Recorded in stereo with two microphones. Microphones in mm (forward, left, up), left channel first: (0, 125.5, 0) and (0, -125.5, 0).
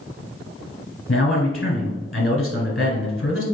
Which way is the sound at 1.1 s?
40° left (ahead or behind).